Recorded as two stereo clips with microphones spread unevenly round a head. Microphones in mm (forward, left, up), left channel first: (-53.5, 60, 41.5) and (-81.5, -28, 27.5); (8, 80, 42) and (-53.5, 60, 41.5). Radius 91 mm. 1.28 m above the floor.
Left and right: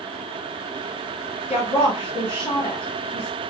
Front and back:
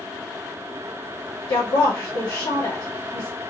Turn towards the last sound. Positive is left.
turn(degrees=0)